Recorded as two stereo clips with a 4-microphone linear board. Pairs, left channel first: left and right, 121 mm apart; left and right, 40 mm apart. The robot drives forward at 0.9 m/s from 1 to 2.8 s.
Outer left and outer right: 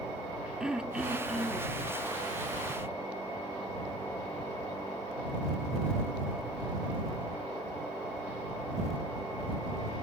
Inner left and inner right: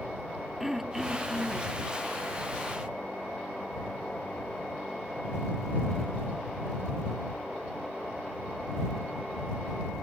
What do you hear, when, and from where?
0.6 s throat clearing: 5° right (ahead or behind), 0.7 m